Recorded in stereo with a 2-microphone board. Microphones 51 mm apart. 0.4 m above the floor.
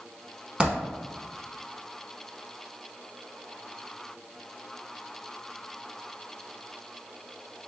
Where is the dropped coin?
25° right (ahead or behind), 0.8 m.